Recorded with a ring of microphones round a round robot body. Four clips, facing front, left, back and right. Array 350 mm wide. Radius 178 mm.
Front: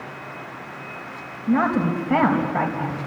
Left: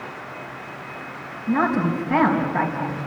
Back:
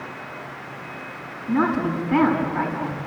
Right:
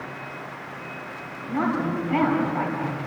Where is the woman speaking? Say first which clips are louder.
Left 4 dB, front 1 dB; 30° left, 4 m.